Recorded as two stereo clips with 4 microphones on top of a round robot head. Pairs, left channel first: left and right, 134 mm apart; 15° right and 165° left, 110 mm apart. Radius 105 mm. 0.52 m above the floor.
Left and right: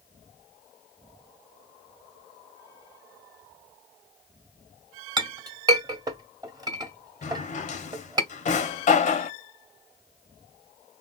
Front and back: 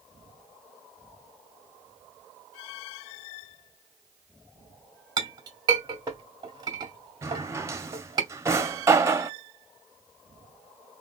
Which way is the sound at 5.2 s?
145° right.